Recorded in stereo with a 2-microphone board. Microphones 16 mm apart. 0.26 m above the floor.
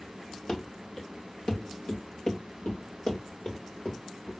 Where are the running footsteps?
40° left (ahead or behind), 1.7 m; by 4.3 s 70° left (ahead or behind), 3.5 m.